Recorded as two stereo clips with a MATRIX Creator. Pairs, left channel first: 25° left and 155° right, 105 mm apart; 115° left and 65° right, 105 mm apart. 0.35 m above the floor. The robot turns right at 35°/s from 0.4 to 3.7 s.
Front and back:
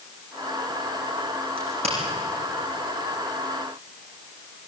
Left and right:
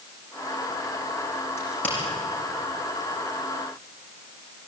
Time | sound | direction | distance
1.6 | a crack | 175° left | 8 m